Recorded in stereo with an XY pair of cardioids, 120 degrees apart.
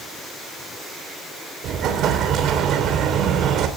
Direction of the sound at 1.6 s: 65° right.